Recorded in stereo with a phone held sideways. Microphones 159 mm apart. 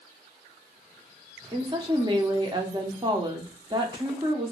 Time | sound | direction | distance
1.5 | a woman speaking | 30° right (ahead or behind) | 0.7 m